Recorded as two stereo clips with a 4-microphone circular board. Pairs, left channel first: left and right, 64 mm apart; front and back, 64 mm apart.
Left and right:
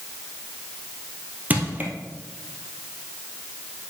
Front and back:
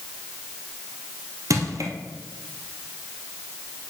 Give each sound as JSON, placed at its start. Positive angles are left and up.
{"t": 1.5, "sound": "crushing", "azimuth_deg": -150, "distance_m": 1.9}